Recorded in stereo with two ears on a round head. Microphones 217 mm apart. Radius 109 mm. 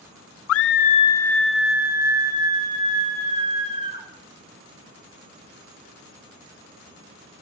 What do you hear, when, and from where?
0.5 s a scream: 60° left (ahead or behind), 0.6 m; by 4.1 s 25° right (ahead or behind), 3 m